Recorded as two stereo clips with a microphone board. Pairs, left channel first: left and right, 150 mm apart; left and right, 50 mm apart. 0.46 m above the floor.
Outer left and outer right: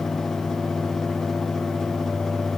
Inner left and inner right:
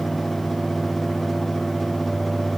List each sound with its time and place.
Only background noise.